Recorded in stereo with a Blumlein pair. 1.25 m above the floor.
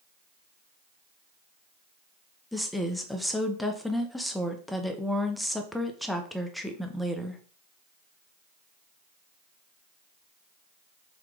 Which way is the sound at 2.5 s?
Straight ahead.